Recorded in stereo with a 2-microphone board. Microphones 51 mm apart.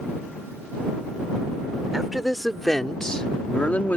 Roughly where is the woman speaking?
Centre.